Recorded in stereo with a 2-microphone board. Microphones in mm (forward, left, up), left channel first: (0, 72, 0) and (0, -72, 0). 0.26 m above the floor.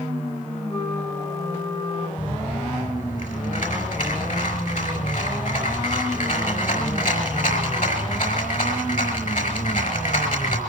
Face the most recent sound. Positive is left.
turn(degrees=65)  # may be behind; listen again after turning